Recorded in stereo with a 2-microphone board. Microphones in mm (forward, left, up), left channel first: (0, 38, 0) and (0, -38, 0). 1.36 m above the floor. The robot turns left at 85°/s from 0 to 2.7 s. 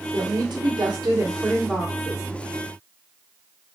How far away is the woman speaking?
About 1.3 m.